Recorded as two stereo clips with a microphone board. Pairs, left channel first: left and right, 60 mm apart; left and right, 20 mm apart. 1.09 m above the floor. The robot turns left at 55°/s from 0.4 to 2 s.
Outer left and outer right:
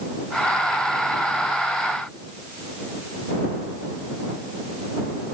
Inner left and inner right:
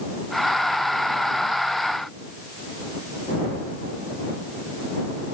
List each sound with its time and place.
Only background noise.